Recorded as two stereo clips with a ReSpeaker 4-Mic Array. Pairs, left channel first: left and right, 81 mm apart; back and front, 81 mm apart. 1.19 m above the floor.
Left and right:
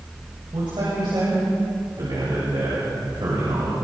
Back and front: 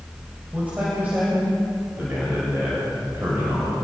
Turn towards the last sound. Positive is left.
turn(degrees=-60)